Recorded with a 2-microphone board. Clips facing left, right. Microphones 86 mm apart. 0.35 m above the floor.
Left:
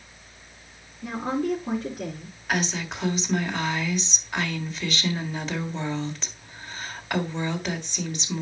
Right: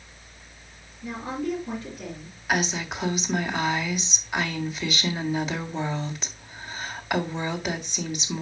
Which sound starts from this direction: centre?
A woman speaking, at 2.5 s.